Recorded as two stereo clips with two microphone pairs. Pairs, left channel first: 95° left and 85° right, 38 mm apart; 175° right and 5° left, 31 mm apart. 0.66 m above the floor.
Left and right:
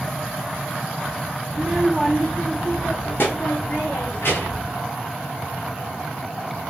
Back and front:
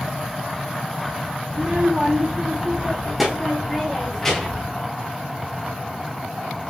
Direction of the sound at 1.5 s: 15° right.